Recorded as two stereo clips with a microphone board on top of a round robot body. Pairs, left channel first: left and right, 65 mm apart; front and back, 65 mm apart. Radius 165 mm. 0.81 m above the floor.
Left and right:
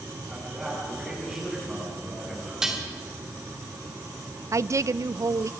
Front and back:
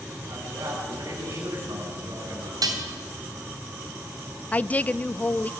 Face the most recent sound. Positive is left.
turn(degrees=-65)